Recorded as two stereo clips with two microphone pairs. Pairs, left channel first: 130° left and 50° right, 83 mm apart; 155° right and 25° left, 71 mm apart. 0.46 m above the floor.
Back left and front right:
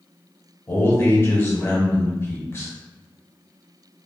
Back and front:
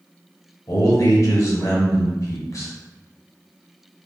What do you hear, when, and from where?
0.7 s a man speaking: straight behind, 1.5 m